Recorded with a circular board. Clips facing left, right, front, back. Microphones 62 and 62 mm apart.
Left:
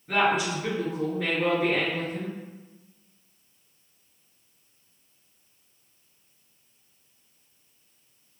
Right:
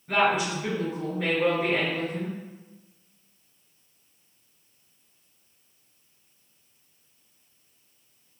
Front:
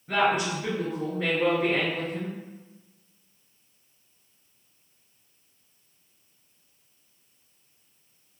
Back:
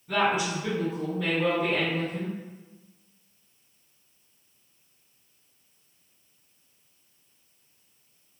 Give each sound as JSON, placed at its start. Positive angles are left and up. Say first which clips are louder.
{"t": 0.1, "sound": "a woman speaking", "louder": "even, front 1 dB", "azimuth_deg": 0, "distance_m": 1.7}